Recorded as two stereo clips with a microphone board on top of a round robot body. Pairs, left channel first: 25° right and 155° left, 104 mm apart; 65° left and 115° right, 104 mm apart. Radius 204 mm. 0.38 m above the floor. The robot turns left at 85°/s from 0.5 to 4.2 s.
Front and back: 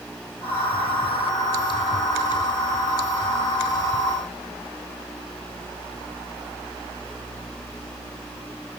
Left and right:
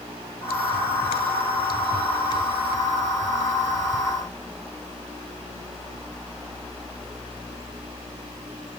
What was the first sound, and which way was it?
Only background noise.